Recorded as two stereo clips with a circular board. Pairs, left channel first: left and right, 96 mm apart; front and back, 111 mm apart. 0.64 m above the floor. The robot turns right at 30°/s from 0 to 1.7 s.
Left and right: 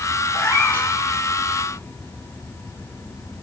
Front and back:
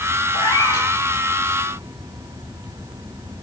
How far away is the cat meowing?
About 3 m.